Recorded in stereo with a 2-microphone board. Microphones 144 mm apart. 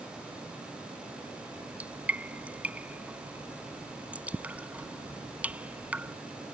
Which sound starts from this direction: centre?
Dripping, at 1.5 s.